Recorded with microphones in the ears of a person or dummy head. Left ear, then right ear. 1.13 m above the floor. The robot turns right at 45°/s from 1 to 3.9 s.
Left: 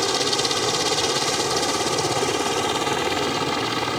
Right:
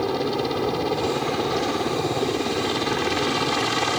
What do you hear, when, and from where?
0.0 s a helicopter: 65° left; by 4.0 s 165° right